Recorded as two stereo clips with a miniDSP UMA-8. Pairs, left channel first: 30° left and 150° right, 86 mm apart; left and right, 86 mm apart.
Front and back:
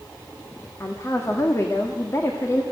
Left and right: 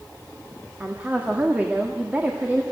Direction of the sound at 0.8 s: 20° right.